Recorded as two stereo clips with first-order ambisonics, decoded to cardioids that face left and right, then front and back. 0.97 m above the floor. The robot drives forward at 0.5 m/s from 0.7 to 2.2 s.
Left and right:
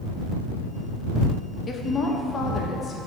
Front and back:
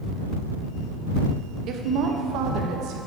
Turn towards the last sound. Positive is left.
turn(degrees=160)